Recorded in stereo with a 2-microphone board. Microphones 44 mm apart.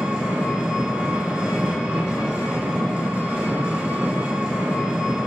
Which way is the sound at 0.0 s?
30° right (ahead or behind).